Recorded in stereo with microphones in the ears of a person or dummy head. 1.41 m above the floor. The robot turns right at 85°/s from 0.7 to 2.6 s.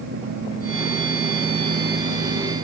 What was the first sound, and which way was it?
Only background noise.